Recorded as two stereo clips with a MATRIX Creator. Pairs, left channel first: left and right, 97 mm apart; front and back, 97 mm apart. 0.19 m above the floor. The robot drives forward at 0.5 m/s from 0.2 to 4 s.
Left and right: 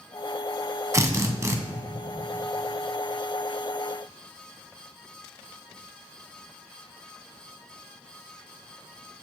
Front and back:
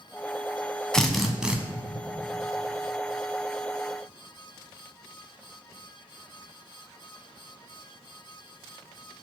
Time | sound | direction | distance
0.9 | a drill | 75° right | 0.9 m